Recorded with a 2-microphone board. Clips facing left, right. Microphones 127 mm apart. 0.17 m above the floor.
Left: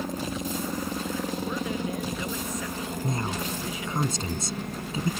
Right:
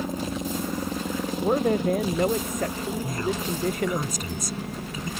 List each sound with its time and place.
0.0 s a helicopter: 5° right (ahead or behind); by 5.2 s centre (ahead or behind)
1.4 s a man speaking: 55° right (ahead or behind)
3.0 s a woman speaking: 30° left (ahead or behind)